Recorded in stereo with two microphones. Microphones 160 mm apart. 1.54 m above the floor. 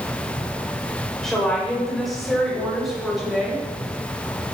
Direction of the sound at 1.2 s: 5° left (ahead or behind).